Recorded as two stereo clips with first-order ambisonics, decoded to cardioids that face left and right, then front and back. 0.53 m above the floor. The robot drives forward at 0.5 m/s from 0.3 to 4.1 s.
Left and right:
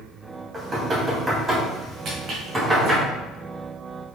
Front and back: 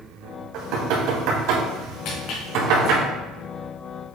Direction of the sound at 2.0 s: 30° right.